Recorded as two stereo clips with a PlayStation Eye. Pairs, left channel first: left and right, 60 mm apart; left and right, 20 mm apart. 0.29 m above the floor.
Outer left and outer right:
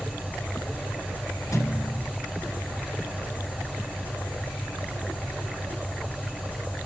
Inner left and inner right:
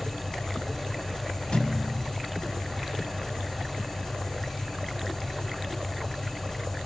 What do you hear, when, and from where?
0.0 s an engine running: 30° left (ahead or behind), 4 m
1.5 s a thud: 55° left (ahead or behind), 0.9 m